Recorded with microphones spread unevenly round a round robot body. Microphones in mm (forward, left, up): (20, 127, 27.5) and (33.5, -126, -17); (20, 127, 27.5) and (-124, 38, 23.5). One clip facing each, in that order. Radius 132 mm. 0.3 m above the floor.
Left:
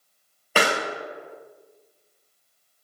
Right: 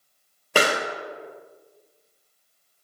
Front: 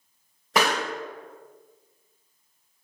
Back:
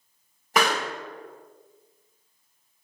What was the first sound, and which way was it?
A pop, 40° right.